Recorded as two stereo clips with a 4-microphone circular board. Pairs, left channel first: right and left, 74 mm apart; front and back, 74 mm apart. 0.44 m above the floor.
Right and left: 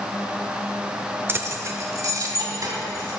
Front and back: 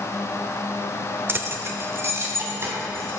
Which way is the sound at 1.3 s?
135° left.